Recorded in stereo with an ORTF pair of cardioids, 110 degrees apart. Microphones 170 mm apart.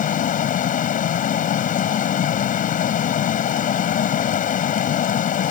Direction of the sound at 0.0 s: 55° left.